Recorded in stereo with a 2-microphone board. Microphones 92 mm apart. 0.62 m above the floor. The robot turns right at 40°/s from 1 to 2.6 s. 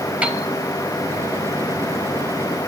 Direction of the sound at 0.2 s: 15° right (ahead or behind).